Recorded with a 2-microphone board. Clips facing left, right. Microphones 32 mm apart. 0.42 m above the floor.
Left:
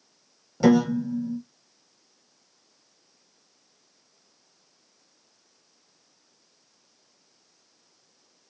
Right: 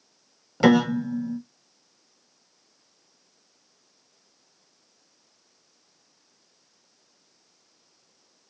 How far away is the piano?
About 0.6 m.